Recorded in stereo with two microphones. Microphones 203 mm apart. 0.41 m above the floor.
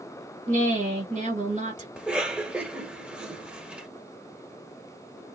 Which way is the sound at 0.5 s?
40° right (ahead or behind).